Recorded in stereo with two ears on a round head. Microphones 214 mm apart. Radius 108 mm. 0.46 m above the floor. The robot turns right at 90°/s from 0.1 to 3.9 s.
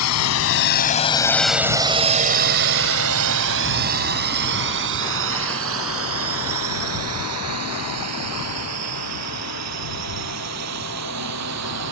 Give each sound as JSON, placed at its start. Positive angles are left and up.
{"t": 0.0, "sound": "a drone", "side_deg": 75}